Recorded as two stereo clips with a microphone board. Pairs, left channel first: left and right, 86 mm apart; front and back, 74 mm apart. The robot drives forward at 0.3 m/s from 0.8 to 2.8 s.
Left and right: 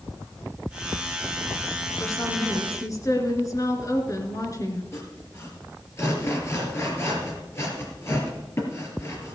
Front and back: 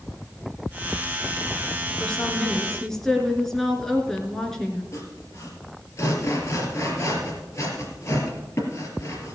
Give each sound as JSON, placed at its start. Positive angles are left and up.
{"t": 2.0, "sound": "a woman speaking", "azimuth_deg": 70, "distance_m": 2.0}
{"t": 4.9, "sound": "sawing", "azimuth_deg": 40, "distance_m": 3.0}